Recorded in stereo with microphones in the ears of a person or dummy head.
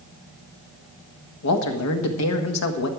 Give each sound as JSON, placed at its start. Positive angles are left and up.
{"t": 1.4, "sound": "a man speaking", "side_deg": 75, "distance_m": 1.5}